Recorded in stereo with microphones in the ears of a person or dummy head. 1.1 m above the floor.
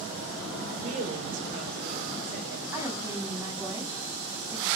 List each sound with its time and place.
0.7 s a woman speaking: 35° right (ahead or behind), 4 m; by 2.6 s 60° right (ahead or behind), 4 m
2.7 s a woman speaking: 20° right (ahead or behind), 7 m